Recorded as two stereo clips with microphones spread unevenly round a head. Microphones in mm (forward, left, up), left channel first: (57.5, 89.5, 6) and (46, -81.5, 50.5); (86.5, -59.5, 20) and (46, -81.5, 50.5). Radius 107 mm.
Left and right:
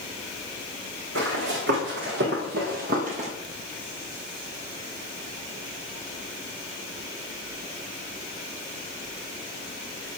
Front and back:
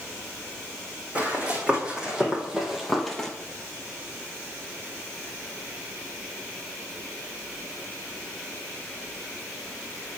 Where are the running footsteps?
100° right, 3.5 m; by 3.3 s 75° right, 1.6 m.